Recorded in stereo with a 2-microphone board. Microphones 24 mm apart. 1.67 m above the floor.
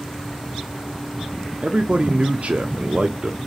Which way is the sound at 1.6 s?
55° right (ahead or behind).